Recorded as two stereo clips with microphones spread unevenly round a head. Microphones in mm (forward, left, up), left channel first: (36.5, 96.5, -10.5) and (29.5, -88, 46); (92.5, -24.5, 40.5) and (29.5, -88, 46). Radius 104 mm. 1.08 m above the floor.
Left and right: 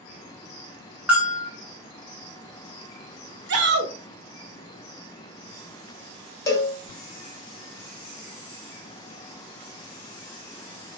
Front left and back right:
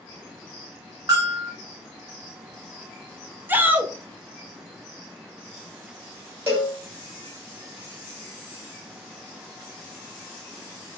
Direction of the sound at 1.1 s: 175° left.